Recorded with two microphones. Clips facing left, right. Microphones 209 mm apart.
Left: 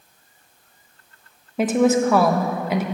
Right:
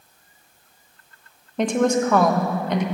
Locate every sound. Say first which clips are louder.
1.6 s a woman speaking: left 2 dB; 5° left (ahead or behind), 1.0 m